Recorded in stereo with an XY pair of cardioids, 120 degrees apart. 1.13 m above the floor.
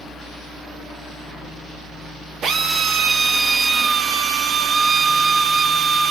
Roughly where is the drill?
Ahead right.